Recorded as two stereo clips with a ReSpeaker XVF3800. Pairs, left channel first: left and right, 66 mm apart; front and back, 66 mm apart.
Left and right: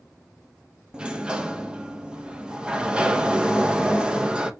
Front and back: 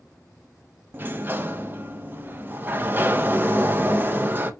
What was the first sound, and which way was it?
A sliding door, 155° right.